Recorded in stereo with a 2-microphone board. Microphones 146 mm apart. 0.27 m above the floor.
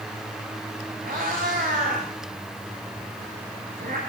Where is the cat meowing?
75° right (ahead or behind), 10 m.